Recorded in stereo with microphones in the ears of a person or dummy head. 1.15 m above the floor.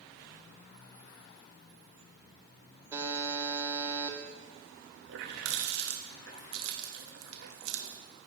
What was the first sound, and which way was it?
A buzzer, 25° right (ahead or behind).